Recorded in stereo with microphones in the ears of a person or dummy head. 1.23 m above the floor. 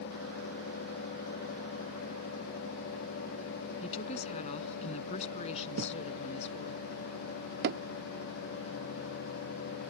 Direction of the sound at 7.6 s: 55° right (ahead or behind).